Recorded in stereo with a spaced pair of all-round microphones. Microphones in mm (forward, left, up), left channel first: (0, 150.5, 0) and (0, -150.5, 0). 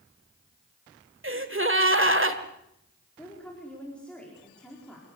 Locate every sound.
1.2 s a gasp: 40° right (ahead or behind), 1.7 m
3.2 s a woman speaking: 5° left (ahead or behind), 4.5 m